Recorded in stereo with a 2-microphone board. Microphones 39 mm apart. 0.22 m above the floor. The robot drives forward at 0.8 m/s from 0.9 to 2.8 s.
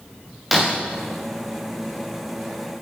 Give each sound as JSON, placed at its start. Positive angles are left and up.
{"t": 0.5, "sound": "breaking glass", "side_deg": -5, "distance_m": 4.0}